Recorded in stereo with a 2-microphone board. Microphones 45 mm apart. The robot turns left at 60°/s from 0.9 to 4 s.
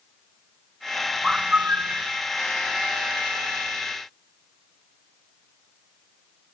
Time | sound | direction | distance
1.2 | a bird | 10° right | ?